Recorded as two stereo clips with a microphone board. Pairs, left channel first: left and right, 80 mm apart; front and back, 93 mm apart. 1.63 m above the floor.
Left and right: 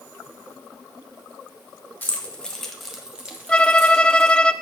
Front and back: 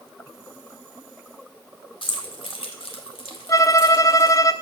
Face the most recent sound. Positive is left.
turn(degrees=20)